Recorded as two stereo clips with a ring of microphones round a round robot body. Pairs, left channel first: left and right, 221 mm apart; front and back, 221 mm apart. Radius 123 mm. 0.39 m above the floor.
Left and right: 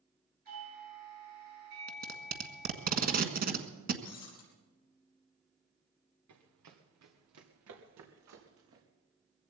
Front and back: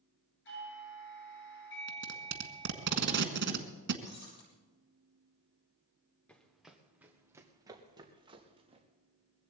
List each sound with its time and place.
0.5 s a doorbell: 35° right, 10 m
1.9 s tape being pulled: 140° right, 1.5 m
4.0 s breaking glass: 55° left, 4.5 m
6.3 s running footsteps: 85° right, 2 m; by 8.8 s 115° right, 3.5 m